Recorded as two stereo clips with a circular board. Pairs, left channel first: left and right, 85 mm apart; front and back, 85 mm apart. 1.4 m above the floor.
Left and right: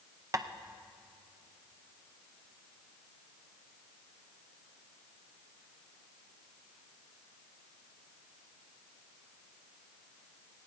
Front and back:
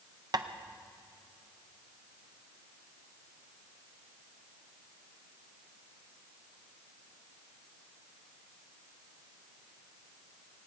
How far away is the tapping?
About 0.6 m.